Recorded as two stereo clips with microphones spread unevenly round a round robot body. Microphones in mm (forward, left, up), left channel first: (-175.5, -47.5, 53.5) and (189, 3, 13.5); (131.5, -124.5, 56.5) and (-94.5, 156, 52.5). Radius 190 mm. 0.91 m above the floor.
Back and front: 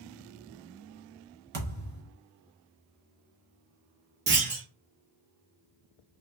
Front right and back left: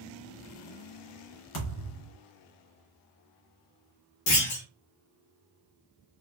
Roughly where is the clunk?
Ahead right.